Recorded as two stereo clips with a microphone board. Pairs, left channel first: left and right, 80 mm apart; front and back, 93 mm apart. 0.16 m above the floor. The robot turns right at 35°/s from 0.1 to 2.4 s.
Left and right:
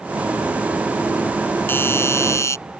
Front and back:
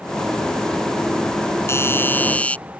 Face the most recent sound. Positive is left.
turn(degrees=70)